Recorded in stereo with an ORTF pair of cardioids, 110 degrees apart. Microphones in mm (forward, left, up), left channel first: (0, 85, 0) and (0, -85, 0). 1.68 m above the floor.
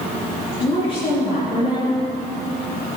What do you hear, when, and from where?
0.6 s a woman speaking: 40° left, 4 m